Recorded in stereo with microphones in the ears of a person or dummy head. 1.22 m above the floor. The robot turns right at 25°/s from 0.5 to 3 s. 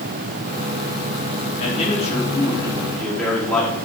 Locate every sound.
1.6 s a man speaking: 135° left, 3 m; by 3.7 s 170° left, 3 m